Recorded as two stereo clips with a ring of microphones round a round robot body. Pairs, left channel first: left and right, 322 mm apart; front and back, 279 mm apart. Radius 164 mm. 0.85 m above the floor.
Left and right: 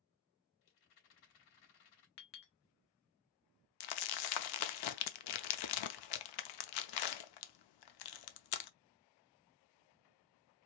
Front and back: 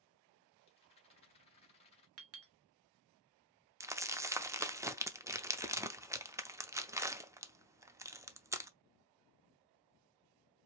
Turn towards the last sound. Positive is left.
turn(degrees=100)